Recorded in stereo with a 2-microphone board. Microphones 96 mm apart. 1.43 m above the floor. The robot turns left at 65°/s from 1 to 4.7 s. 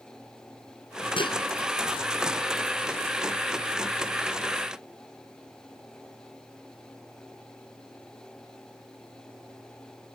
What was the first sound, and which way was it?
Dishes clattering, 60° left (ahead or behind).